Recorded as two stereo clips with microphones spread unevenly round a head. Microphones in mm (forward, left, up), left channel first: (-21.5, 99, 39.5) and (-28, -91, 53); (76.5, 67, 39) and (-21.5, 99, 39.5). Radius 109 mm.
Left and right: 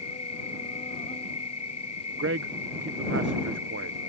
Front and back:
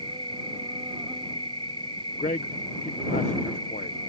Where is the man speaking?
55° right.